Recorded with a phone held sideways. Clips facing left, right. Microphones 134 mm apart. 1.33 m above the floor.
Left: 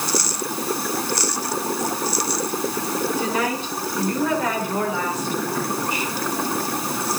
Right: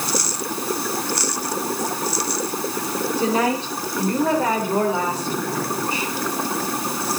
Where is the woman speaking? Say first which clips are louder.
Right 3 dB; 30° right (ahead or behind), 7 m; by 6.1 s 35° right (ahead or behind), 5.5 m.